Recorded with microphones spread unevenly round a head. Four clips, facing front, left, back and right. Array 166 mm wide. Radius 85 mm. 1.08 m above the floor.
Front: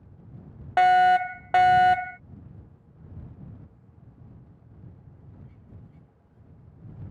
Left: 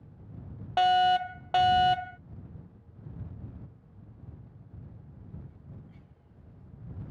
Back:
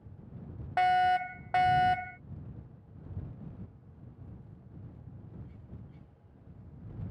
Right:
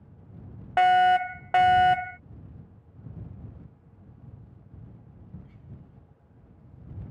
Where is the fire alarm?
20° right.